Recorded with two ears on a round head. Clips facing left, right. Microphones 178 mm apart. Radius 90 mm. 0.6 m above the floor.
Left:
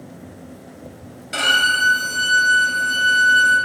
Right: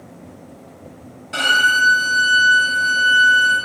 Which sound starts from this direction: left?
A violin, at 1.3 s.